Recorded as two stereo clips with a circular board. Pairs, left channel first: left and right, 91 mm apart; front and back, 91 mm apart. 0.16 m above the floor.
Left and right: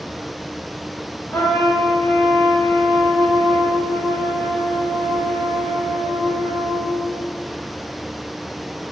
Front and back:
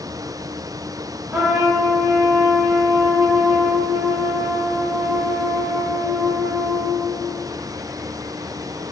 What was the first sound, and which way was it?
A trumpet, 125° left.